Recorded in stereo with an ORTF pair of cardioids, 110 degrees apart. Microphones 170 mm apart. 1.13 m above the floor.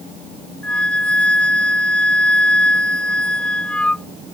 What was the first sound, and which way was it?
A flute, 10° left.